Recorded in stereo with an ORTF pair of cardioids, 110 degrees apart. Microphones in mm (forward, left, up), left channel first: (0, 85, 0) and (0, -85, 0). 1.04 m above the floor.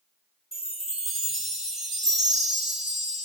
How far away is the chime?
About 1.2 m.